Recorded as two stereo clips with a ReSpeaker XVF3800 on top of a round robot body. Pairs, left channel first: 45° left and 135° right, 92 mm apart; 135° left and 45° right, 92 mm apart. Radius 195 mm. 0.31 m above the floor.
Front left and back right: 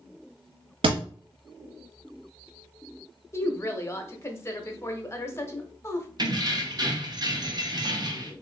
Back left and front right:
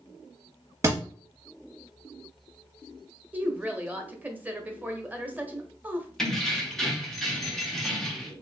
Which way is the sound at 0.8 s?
105° right.